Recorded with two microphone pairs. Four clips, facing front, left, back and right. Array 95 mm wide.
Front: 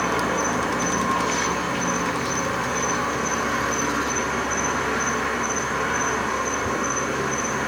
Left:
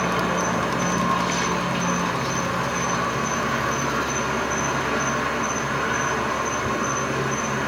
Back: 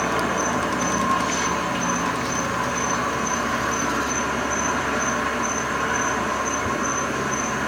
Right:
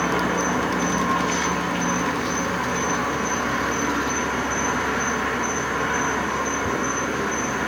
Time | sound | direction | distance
0.0 | an insect | 125° left | 2 m